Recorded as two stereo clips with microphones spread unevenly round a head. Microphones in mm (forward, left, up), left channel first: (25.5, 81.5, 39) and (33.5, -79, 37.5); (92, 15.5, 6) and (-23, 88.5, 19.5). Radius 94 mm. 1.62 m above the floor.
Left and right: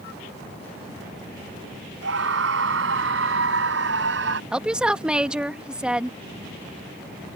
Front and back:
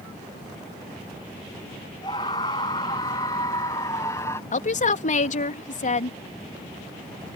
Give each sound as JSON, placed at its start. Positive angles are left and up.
{"t": 2.0, "sound": "a scream", "azimuth_deg": -105}
{"t": 4.5, "sound": "a woman speaking", "azimuth_deg": -5}